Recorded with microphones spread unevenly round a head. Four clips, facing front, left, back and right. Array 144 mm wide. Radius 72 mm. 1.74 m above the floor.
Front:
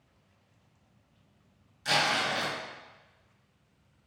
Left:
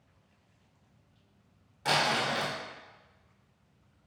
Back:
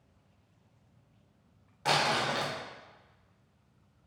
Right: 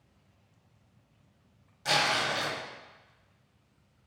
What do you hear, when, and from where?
1.9 s crumpling: 160° left, 1.7 m